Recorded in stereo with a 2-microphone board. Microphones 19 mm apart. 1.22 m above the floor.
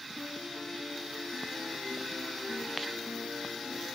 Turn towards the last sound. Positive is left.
turn(degrees=-55)  # may be behind; listen again after turning